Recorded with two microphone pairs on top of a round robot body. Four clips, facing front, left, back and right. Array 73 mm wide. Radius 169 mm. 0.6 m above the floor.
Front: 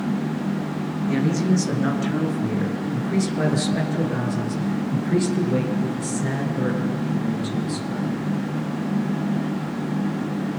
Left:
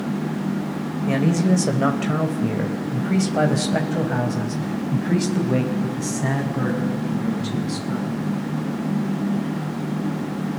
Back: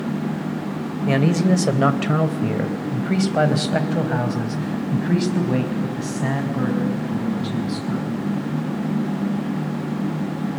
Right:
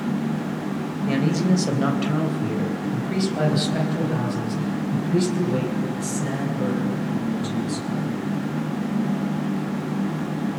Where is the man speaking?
165° left, 3 m; by 8.3 s 135° left, 5.5 m.